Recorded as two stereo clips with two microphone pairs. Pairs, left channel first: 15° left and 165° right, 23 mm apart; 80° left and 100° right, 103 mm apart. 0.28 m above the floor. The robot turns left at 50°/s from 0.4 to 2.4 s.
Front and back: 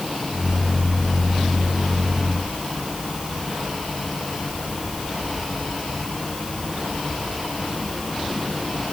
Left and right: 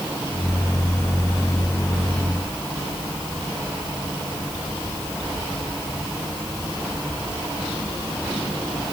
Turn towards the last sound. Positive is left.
No sound to turn to.